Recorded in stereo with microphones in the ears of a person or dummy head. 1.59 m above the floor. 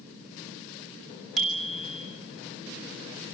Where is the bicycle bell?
Centre (ahead or behind), 3 m.